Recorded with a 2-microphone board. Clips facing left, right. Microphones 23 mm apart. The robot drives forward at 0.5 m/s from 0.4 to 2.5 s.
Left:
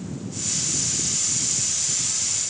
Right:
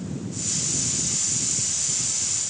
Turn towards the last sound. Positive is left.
No sound to turn to.